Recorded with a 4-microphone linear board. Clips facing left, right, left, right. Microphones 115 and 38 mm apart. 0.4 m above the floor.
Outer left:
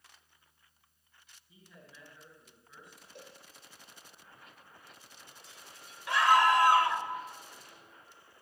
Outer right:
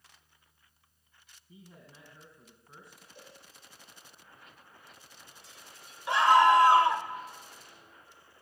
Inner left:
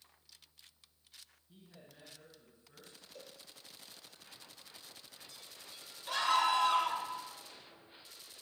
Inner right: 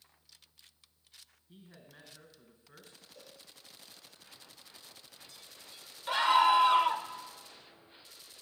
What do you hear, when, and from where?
1.5 s a man speaking: 30° right (ahead or behind), 4 m
3.1 s a cowbell: 65° left (ahead or behind), 3.5 m
6.1 s a scream: 25° right (ahead or behind), 1.2 m